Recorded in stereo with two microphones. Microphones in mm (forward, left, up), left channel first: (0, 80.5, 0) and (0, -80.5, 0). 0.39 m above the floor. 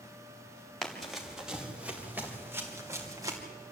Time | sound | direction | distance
0.8 | running footsteps | centre (ahead or behind) | 4 m